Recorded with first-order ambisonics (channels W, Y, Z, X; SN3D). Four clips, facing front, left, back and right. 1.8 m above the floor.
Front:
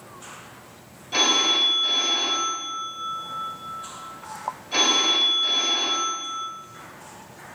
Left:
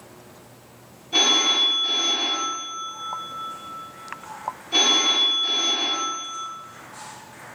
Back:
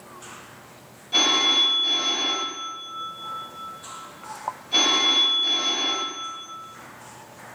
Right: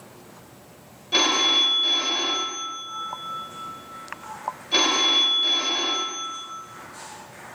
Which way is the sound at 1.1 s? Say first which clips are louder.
Left 1 dB, back 1 dB; 75° right.